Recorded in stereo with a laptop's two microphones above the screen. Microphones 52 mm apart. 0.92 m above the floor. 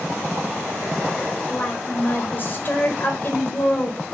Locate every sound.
1.5 s a woman speaking: 40° left (ahead or behind), 4.5 m